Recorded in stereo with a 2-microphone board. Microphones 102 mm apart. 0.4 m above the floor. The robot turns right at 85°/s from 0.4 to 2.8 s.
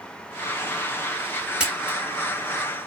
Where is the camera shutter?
10° right (ahead or behind), 1.3 m; by 2.0 s 20° right (ahead or behind), 1.3 m.